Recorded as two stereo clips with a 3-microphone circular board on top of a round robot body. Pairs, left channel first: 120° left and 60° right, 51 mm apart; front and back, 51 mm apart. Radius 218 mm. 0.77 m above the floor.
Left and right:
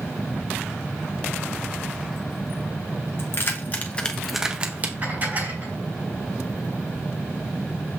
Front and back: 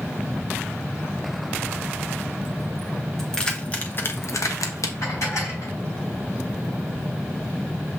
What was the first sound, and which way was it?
Keys jangling, 80° left.